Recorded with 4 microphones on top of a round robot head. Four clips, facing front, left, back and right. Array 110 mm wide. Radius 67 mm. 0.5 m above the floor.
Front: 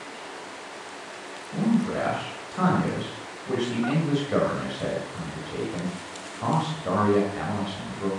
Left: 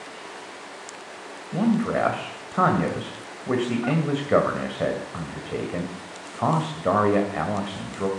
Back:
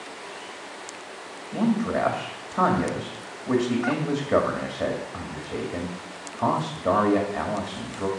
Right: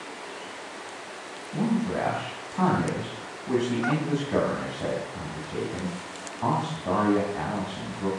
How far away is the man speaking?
About 2 m.